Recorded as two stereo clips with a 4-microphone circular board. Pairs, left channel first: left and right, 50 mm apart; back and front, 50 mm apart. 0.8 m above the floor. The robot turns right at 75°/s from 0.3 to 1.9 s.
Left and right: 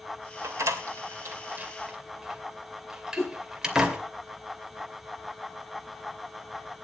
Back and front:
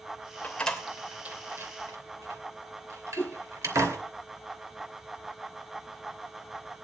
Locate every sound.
0.4 s a door slam: 120° right, 2.5 m; by 4.0 s 10° right, 2.5 m
3.2 s a whoosh: 125° left, 2 m